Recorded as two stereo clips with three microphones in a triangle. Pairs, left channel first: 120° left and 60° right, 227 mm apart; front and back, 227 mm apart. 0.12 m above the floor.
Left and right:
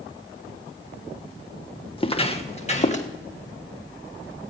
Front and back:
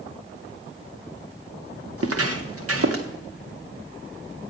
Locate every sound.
2.0 s footsteps: 170° right, 1.0 m; by 3.1 s straight behind, 2 m